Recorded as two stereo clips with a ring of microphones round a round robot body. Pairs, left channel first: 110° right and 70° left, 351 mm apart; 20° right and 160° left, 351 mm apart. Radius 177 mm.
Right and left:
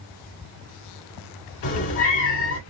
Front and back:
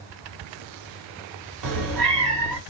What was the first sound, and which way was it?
A cat meowing, 165° right.